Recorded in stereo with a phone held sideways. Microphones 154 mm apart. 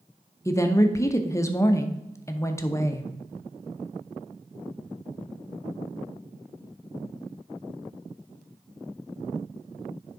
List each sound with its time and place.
0.5 s a woman speaking: 20° left (ahead or behind), 0.7 m